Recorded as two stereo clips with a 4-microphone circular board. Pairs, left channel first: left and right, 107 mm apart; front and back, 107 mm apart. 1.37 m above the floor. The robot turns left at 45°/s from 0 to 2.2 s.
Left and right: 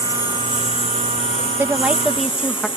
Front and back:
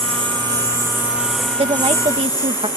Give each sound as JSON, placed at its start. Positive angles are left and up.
{"t": 0.0, "sound": "a lawn mower", "azimuth_deg": 155}
{"t": 1.6, "sound": "a woman speaking", "azimuth_deg": -155}